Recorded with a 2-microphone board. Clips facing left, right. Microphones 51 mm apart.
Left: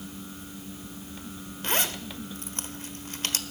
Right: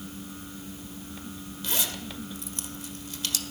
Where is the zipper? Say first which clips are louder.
Left 4 dB; 45° left (ahead or behind), 1.2 m.